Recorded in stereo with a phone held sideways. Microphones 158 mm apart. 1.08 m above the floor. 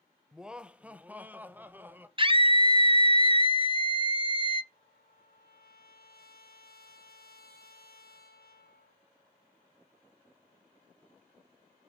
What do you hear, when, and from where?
0.3 s laughter: 5° right (ahead or behind), 0.7 m; by 2.1 s 15° right (ahead or behind), 1.5 m
2.2 s a scream: 35° right (ahead or behind), 1.2 m
4.7 s a trumpet: 80° left, 4 m